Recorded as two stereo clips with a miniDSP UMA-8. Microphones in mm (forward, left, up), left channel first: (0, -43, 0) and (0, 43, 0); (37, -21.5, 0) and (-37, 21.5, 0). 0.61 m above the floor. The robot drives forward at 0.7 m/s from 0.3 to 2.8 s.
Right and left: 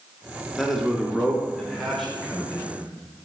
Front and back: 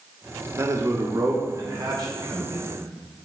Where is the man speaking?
175° right, 1.0 m; by 2.8 s straight behind, 2.5 m.